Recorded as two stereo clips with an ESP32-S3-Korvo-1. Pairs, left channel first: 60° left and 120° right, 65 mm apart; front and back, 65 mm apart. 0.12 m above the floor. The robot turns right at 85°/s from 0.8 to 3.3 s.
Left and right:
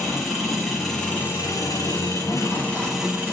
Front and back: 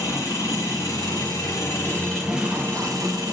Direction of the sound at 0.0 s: 30° right.